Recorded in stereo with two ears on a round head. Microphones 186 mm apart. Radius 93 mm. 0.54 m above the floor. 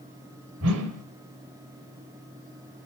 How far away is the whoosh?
About 1.9 m.